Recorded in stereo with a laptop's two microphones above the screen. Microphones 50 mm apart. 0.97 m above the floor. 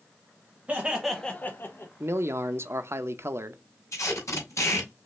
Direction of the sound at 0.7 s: 30° right (ahead or behind).